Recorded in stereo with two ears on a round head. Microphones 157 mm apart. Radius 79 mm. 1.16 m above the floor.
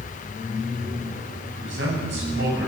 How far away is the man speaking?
About 8.5 m.